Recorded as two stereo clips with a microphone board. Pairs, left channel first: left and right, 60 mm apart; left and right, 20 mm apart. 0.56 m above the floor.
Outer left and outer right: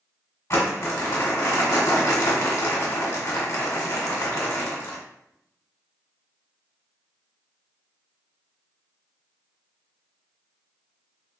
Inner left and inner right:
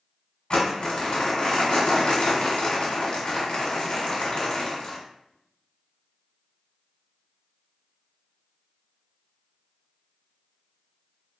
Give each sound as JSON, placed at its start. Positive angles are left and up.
{"t": 0.5, "sound": "crumpling", "side_deg": 50, "distance_m": 1.3}